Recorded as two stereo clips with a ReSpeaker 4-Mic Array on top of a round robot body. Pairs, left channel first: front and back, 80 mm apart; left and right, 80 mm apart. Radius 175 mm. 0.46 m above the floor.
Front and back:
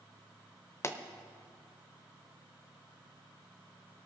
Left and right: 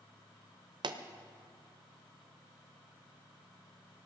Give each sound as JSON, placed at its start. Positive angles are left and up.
{"t": 0.8, "sound": "a pop", "azimuth_deg": -60, "distance_m": 0.9}